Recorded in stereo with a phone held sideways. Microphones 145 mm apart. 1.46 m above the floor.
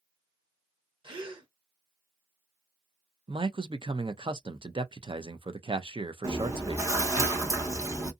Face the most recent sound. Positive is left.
turn(degrees=-25)  # may be behind; listen again after turning